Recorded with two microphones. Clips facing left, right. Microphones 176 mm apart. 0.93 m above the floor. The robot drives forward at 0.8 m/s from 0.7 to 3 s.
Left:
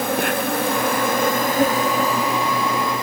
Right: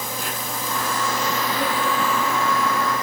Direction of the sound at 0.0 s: 65° left (ahead or behind).